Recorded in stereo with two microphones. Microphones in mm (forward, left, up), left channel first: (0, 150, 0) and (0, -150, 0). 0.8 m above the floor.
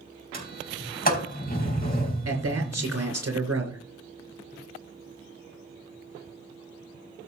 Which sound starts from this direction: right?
A man speaking, at 2.2 s.